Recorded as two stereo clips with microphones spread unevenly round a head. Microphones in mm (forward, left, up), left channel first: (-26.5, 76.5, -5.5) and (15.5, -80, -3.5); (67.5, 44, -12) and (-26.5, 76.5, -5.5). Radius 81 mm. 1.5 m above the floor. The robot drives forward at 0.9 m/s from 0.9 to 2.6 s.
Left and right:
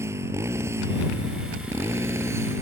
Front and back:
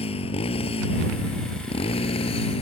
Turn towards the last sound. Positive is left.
turn(degrees=0)